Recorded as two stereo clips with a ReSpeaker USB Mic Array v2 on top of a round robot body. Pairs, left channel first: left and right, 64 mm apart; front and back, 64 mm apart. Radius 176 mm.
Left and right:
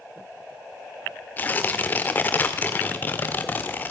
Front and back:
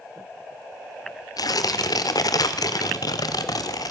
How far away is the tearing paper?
About 0.6 m.